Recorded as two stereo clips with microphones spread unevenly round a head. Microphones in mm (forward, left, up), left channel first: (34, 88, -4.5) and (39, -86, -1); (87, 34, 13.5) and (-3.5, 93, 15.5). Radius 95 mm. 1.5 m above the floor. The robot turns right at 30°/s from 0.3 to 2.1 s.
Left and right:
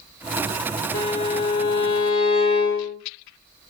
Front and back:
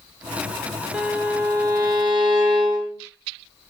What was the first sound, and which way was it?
A violin, 70° left.